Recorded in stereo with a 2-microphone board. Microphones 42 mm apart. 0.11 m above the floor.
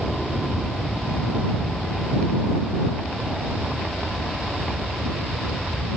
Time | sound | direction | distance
0.0 | an aircraft | centre (ahead or behind) | ?